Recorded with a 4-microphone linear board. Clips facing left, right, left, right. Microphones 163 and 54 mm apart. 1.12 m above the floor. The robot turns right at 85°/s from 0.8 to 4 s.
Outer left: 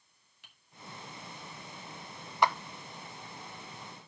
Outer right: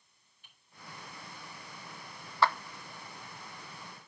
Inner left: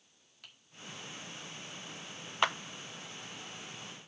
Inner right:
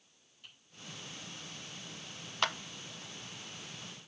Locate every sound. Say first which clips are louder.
0.4 s typing on a keyboard: outer left 2 dB, even; 85° left, 2.0 m
2.4 s a clap: even, inner left 3 dB; 15° left (ahead or behind), 0.6 m; by 2.6 s 10° left (ahead or behind), 0.6 m